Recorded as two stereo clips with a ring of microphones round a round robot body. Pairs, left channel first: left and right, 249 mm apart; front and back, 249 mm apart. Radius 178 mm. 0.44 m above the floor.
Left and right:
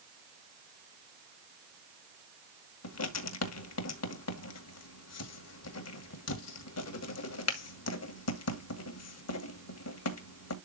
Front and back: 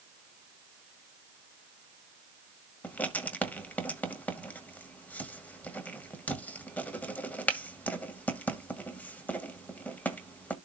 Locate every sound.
2.8 s writing: 85° left, 2.0 m